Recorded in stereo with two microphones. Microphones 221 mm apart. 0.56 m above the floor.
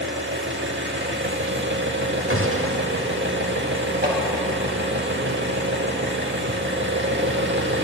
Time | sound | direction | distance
0.0 | an engine running | 55° right (ahead or behind) | 0.8 m
2.3 | a gunshot | 70° right (ahead or behind) | 0.9 m
4.0 | hammering | 45° right (ahead or behind) | 3 m